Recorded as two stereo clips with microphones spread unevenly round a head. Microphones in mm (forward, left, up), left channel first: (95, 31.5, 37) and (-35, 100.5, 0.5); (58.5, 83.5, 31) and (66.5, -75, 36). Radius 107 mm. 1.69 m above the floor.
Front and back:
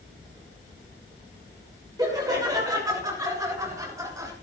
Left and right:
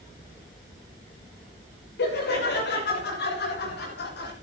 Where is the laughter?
85° left, 6.5 m.